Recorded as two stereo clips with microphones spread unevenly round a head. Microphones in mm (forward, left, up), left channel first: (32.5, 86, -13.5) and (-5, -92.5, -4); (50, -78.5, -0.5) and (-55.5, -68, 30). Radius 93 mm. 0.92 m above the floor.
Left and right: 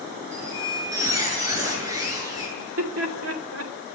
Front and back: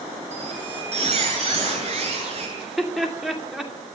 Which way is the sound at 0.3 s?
175° right.